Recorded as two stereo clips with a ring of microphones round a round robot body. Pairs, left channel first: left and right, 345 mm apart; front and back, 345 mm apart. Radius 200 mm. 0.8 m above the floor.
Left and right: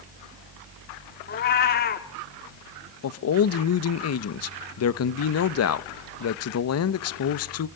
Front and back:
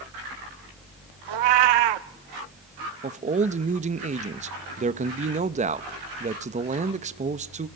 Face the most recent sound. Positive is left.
turn(degrees=115)